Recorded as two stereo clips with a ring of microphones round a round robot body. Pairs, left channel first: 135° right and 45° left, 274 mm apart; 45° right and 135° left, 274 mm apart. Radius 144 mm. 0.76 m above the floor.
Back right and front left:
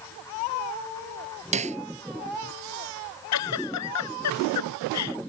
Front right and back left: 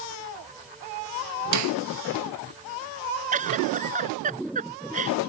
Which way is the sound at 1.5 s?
110° left.